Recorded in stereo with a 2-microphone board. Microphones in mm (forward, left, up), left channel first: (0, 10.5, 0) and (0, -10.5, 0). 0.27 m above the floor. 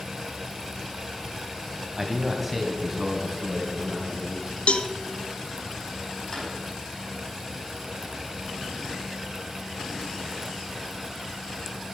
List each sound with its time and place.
2.0 s a man speaking: 5° right (ahead or behind), 1.4 m; by 4.6 s 5° left (ahead or behind), 3.5 m
4.7 s a cowbell: 70° left (ahead or behind), 0.6 m
6.3 s a drawer: 40° left (ahead or behind), 5 m